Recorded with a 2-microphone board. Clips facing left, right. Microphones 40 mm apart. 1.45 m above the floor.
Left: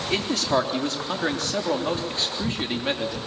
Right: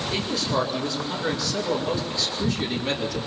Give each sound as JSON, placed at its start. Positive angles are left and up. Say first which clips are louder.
{"t": 0.1, "sound": "a man speaking", "louder": "left 4 dB", "side_deg": 65, "distance_m": 4.0}